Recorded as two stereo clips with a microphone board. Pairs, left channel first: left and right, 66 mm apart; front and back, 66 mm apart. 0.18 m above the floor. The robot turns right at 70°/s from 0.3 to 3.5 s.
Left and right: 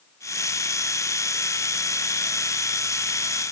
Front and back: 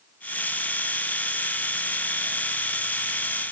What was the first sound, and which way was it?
Only background noise.